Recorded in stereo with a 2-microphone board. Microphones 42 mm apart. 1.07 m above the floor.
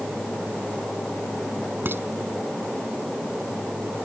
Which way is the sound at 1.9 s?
55° right (ahead or behind).